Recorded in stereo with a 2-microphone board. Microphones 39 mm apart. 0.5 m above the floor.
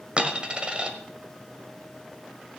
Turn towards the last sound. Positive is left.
turn(degrees=-25)  # may be behind; listen again after turning